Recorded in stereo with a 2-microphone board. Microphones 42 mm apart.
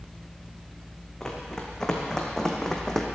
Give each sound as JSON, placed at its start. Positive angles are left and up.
{"t": 1.2, "sound": "running footsteps", "side_deg": 15, "distance_m": 3.0}